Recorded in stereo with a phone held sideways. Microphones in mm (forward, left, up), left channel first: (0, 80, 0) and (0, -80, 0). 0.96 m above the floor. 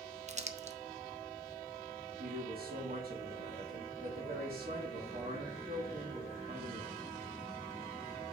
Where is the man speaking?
70° right (ahead or behind), 2.5 m.